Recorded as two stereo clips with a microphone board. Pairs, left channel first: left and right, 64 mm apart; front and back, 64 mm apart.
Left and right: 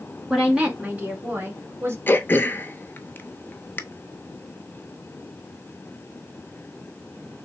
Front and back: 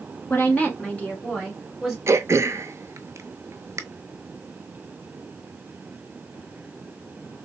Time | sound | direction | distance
0.3 | a woman speaking | 20° right | 1.5 m
2.1 | throat clearing | 145° left | 0.5 m